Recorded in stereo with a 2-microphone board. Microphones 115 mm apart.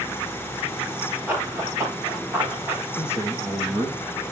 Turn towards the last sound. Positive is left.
turn(degrees=-10)  # may be behind; listen again after turning